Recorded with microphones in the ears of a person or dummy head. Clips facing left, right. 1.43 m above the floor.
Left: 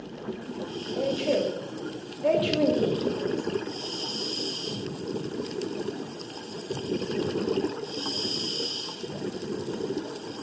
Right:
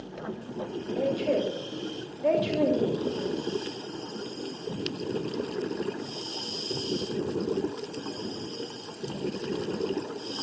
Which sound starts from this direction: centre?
A woman speaking, at 0.9 s.